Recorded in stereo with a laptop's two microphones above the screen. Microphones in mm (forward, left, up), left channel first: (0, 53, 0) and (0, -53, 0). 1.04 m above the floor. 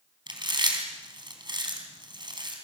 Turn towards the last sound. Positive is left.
turn(degrees=-45)  # may be behind; listen again after turning